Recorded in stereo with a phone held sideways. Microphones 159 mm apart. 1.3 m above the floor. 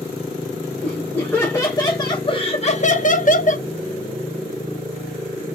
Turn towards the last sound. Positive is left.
turn(degrees=50)  # may be behind; listen again after turning